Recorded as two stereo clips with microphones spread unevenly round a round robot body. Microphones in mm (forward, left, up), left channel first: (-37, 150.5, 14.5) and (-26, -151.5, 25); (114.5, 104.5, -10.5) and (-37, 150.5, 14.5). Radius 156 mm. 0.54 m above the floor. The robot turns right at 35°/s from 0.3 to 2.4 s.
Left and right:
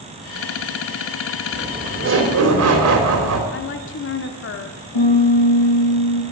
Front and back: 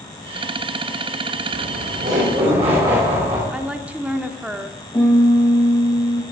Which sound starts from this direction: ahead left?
A piano, at 4.9 s.